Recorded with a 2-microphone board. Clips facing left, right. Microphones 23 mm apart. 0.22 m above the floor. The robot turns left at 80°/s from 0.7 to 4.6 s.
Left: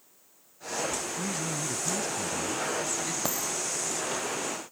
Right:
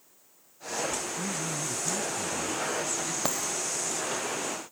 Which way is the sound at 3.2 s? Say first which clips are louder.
Right 1 dB; 10° right (ahead or behind).